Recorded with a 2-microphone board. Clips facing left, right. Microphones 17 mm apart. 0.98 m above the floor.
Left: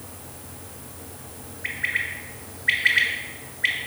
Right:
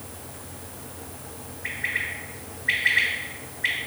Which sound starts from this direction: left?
A bird, at 1.6 s.